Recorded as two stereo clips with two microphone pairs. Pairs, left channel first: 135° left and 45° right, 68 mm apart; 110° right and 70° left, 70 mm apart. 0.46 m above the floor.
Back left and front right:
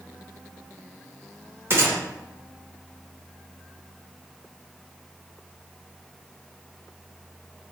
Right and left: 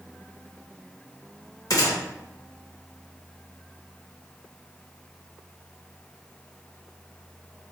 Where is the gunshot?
90° right, 0.7 m.